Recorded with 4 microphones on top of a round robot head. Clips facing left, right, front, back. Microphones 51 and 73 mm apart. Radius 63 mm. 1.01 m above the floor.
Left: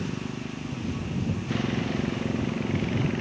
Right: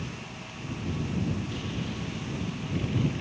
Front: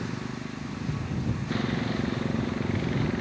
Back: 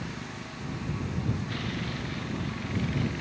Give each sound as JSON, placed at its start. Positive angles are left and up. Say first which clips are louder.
{"t": 0.0, "sound": "a motorcycle", "louder": "left 7 dB, front 4 dB", "azimuth_deg": 60}